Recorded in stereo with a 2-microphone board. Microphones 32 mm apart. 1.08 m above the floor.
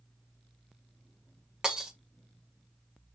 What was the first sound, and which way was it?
Breaking glass, 20° right (ahead or behind).